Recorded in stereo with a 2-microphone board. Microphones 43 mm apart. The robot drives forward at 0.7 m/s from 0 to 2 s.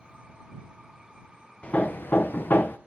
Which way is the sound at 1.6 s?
30° left (ahead or behind).